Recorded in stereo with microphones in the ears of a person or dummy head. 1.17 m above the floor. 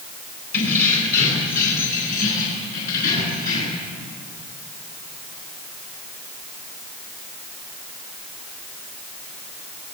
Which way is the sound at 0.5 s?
55° left (ahead or behind).